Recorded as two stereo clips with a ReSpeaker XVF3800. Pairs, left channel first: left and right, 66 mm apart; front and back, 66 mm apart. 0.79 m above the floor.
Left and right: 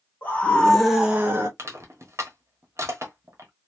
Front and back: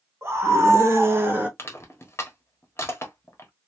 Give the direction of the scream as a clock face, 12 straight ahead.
7 o'clock.